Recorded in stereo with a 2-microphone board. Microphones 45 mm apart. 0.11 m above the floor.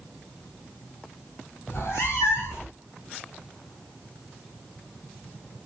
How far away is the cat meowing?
About 0.8 m.